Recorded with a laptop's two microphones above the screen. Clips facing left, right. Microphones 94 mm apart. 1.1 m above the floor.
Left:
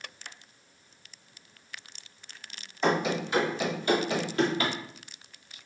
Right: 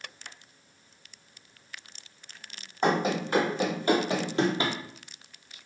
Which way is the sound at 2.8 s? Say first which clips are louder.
Right 1 dB; 45° right (ahead or behind).